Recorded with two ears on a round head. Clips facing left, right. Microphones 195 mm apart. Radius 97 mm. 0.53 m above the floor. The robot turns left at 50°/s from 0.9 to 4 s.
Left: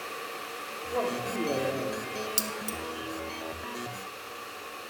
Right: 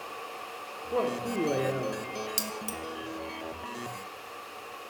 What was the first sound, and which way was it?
A man speaking, 115° right.